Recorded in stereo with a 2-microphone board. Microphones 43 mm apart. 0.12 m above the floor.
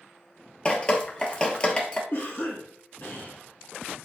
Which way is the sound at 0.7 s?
20° left (ahead or behind).